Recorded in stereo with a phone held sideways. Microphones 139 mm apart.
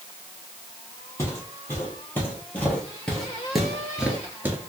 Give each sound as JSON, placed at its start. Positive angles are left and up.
{"t": 1.2, "sound": "footsteps", "side_deg": 20, "distance_m": 1.9}